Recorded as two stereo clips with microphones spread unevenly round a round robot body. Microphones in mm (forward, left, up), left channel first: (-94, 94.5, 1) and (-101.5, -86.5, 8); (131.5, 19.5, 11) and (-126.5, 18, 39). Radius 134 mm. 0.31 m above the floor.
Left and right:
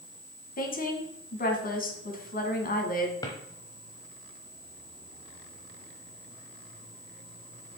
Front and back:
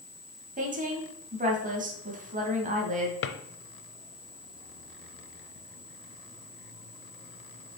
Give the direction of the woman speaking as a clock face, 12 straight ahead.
8 o'clock.